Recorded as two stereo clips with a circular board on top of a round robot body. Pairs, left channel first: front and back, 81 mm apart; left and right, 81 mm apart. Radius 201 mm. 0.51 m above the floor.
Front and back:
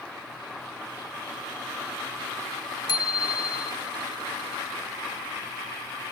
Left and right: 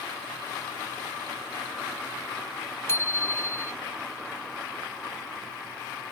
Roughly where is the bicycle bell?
Ahead left.